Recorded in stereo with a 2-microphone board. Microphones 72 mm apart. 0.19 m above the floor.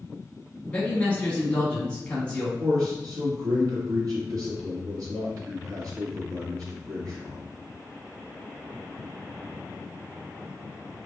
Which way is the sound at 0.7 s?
15° left (ahead or behind).